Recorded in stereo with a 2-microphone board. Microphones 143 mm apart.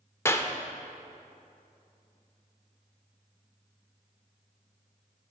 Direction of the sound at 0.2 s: 20° left (ahead or behind).